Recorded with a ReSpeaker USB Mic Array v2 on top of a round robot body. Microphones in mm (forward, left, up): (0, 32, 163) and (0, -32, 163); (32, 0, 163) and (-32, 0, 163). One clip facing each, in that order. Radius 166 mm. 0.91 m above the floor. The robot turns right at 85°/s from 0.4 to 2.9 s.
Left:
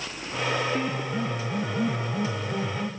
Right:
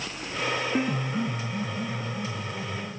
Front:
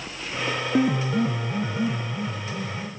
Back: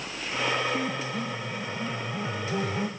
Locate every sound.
0.7 s a piano: 20° right, 0.7 m; by 2.9 s 165° left, 0.7 m